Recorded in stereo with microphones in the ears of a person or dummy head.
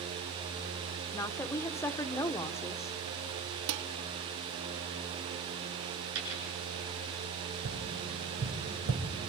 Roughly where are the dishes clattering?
Right.